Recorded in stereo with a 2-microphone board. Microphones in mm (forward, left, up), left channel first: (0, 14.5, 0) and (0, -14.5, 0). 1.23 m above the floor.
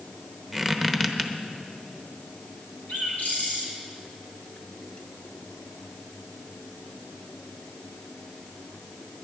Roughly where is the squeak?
Centre.